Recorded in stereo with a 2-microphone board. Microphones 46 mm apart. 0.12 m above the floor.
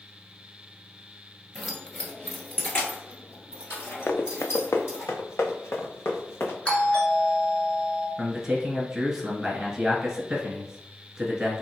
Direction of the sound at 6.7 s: 25° left (ahead or behind).